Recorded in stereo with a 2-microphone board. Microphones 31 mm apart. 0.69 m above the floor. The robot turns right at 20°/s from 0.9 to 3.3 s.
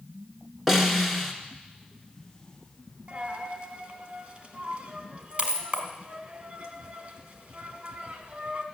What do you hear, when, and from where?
0.7 s a snare drum: 5° right (ahead or behind), 1.5 m; by 1.3 s centre (ahead or behind), 1.5 m
3.1 s a dropped coin: 45° right (ahead or behind), 1.4 m; by 8.7 s 50° right (ahead or behind), 1.4 m